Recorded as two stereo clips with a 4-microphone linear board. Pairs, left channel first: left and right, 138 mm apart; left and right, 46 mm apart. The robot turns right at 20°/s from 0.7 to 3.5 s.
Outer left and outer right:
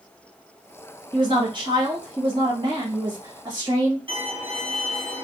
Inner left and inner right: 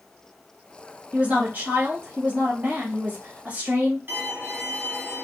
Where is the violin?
40° right (ahead or behind), 1.2 m.